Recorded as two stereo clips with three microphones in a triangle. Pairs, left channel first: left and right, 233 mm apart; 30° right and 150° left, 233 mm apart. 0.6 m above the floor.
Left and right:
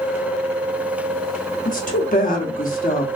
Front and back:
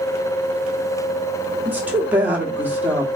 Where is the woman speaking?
70° left, 0.9 m.